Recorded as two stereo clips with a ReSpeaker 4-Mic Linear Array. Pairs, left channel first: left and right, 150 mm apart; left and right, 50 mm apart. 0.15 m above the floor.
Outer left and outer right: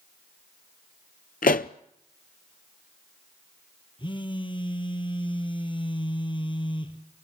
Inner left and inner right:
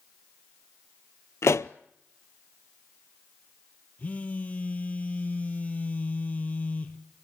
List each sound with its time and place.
1.4 s a pop: 75° left (ahead or behind), 0.5 m
4.0 s a phone buzzing: 35° left (ahead or behind), 2.0 m